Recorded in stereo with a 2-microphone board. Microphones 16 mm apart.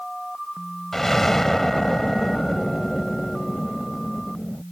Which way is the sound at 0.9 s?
20° left (ahead or behind).